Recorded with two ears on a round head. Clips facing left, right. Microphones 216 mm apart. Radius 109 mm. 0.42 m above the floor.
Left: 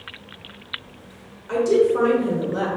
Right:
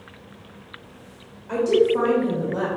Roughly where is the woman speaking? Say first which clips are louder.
Left 1 dB; centre.